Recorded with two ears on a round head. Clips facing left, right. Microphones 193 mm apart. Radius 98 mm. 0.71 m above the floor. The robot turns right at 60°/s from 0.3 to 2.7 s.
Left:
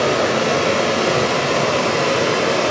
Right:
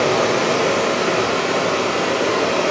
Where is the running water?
5° left, 1.5 m; by 2.7 s 150° left, 1.5 m.